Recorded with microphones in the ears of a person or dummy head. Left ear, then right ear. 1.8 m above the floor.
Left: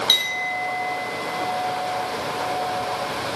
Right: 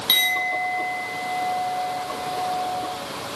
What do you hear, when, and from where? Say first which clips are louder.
0.1 s a clink: right 2 dB; centre (ahead or behind), 9.5 m